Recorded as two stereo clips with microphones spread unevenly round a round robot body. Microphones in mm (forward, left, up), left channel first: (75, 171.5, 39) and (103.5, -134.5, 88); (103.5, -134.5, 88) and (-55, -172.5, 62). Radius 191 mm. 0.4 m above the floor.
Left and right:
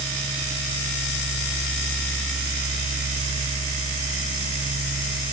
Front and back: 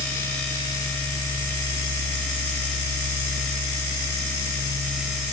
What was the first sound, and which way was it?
Only background noise.